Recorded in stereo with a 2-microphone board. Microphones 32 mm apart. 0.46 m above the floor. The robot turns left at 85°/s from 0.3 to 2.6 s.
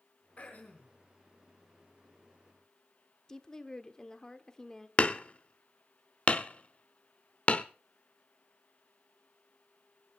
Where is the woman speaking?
20° left (ahead or behind), 1.1 m.